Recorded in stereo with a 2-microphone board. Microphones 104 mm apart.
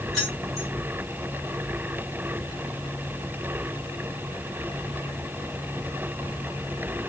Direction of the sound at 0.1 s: 5° left (ahead or behind).